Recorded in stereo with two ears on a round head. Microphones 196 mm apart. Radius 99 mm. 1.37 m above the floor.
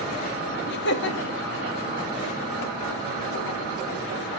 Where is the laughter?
50° left (ahead or behind), 2.5 m.